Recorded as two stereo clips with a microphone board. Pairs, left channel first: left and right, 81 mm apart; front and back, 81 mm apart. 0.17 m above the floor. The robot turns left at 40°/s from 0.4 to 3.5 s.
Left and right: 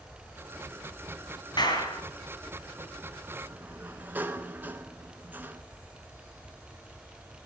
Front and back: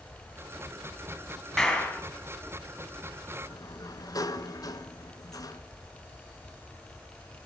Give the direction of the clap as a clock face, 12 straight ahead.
9 o'clock.